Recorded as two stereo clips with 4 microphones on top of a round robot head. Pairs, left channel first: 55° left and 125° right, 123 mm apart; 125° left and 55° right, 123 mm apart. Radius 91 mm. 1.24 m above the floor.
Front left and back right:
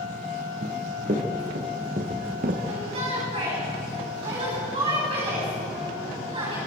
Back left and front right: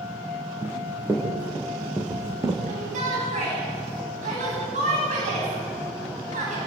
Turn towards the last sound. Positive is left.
turn(degrees=-80)